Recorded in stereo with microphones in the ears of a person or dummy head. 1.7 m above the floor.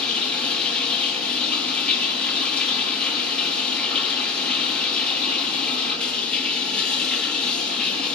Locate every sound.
0.0 s running water: 15° left (ahead or behind), 4 m